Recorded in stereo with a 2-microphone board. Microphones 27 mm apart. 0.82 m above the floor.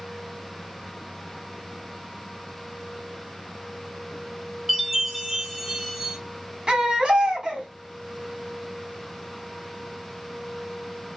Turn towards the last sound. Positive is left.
turn(degrees=-35)  # may be behind; listen again after turning